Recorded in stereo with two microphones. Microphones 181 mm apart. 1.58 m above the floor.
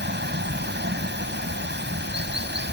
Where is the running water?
90° right.